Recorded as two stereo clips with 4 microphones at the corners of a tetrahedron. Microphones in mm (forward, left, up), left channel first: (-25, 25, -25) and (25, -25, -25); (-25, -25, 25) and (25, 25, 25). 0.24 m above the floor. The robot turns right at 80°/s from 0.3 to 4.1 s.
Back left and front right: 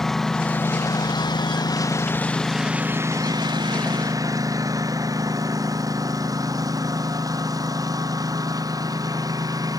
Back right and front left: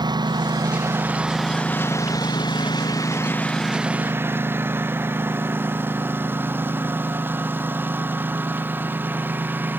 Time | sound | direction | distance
0.0 | a lawn mower | 50° left | ?